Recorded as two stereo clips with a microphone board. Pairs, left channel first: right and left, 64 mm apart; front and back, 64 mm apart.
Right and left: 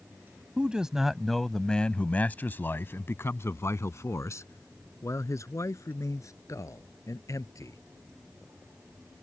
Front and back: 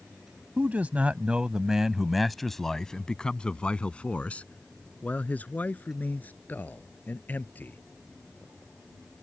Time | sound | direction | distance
0.6 | a man speaking | 150° left | ?